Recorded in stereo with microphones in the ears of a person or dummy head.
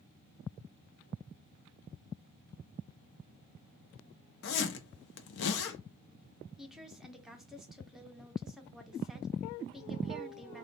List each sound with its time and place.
4.4 s a zipper: 60° left (ahead or behind), 0.6 m
6.6 s a woman speaking: centre (ahead or behind), 0.7 m